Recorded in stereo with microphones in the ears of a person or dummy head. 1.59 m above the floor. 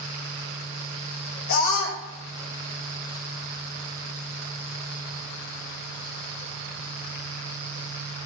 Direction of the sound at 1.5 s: 70° left (ahead or behind).